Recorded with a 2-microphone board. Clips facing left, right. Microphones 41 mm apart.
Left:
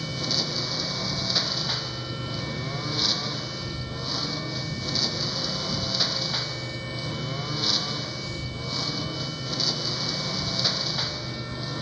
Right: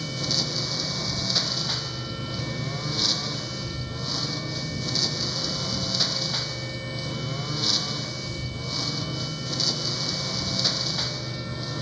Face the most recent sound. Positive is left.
turn(degrees=5)  # may be behind; listen again after turning